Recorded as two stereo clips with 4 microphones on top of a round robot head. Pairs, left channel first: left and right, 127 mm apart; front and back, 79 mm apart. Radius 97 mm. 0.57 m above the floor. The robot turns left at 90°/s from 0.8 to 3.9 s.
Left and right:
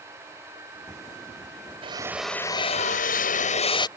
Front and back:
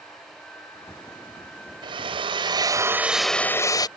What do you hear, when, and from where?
1.8 s a drill: 140° right; by 3.9 s 35° left